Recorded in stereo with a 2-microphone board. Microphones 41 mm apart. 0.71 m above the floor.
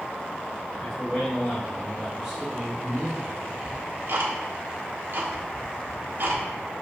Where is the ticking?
60° right (ahead or behind), 1.4 m.